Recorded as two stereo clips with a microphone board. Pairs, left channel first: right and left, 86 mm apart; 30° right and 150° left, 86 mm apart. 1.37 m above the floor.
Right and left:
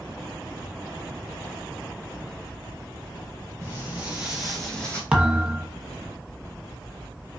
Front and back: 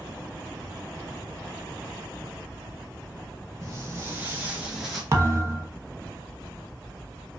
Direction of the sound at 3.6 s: 140° left.